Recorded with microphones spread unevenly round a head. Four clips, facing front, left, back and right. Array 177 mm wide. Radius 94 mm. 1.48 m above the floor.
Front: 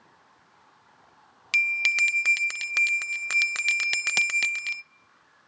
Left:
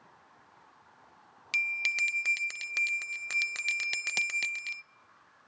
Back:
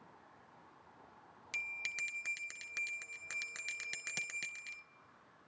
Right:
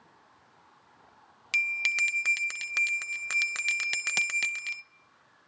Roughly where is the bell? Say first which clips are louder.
Right 3 dB, front 18 dB; ahead.